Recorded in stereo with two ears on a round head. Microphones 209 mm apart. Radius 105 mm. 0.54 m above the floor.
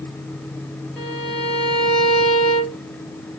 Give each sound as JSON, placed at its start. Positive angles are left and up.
{"t": 1.0, "sound": "a violin", "side_deg": 5, "distance_m": 2.5}